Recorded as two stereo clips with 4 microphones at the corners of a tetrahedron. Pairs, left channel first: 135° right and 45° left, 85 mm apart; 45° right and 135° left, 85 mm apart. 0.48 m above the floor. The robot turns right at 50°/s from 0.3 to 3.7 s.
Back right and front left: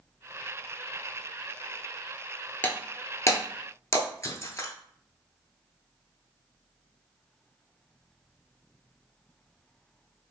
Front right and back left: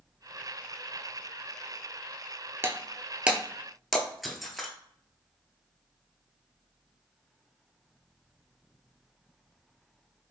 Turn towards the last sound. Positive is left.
turn(degrees=-135)